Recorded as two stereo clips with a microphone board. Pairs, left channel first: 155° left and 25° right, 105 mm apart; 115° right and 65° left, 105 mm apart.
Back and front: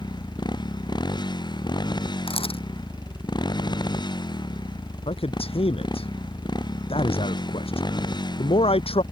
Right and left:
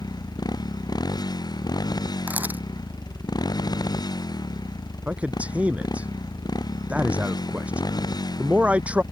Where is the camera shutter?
140° left.